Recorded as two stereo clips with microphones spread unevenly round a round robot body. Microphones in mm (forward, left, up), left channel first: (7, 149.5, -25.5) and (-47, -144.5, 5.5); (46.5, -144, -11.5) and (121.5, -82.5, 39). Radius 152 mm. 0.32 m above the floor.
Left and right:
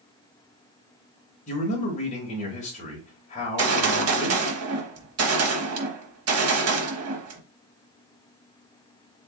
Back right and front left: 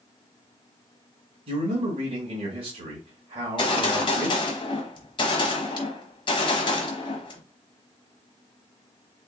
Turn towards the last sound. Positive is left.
turn(degrees=-145)